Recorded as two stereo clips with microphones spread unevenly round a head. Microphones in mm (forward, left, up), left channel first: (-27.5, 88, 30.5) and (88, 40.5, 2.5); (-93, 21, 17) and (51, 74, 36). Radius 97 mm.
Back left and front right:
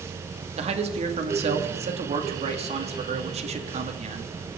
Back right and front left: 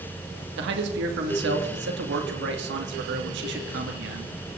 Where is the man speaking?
10° left, 2 m.